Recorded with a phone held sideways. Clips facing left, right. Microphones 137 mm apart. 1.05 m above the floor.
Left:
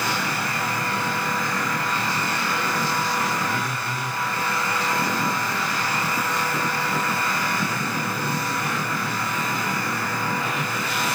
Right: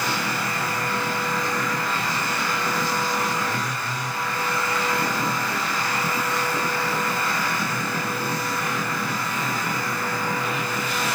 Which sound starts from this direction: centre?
A phone buzzing, at 3.5 s.